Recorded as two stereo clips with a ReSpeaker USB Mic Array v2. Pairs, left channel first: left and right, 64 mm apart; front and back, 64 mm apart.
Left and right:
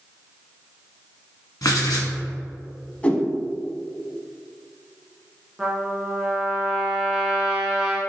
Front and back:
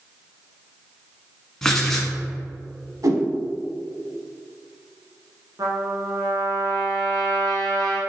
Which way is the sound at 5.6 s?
170° right.